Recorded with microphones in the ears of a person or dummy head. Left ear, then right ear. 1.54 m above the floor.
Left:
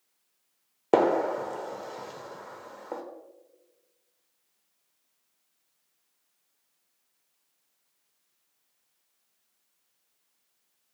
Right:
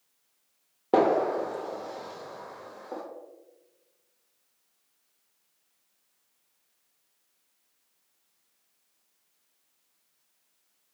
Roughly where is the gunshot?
Left.